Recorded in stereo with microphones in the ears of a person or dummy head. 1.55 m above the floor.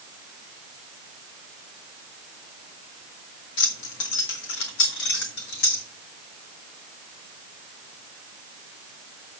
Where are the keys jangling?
70° left (ahead or behind), 2 m; by 5.8 s 55° left (ahead or behind), 3 m.